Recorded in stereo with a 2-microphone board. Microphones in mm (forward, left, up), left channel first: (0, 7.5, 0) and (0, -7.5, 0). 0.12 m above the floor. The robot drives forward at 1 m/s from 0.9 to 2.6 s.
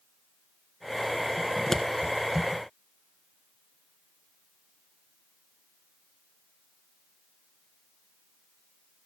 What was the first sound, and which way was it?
Scissors, 25° left (ahead or behind).